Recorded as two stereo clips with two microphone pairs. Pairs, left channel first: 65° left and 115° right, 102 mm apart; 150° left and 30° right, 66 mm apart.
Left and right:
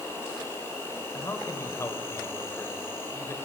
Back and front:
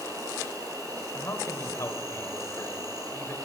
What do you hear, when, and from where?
0.0 s an insect: 5° right, 3.5 m
1.1 s a man speaking: 115° left, 1.5 m